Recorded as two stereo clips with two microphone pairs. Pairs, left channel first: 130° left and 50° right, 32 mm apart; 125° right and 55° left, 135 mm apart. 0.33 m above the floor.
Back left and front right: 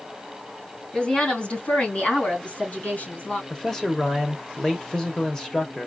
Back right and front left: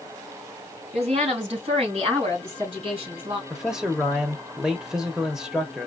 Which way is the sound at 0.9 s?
75° left.